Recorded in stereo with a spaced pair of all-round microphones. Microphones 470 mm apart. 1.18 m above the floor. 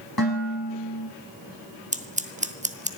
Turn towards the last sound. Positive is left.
turn(degrees=-15)  # may be behind; listen again after turning